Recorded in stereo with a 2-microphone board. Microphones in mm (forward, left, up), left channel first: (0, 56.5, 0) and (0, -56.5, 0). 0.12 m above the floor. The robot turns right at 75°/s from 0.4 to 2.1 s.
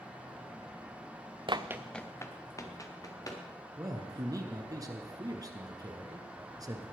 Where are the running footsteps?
50° right (ahead or behind), 0.7 m; by 3.4 s 35° left (ahead or behind), 3 m.